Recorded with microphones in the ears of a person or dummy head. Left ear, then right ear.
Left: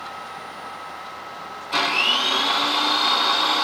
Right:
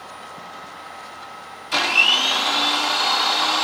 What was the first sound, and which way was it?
A blender, 60° right (ahead or behind).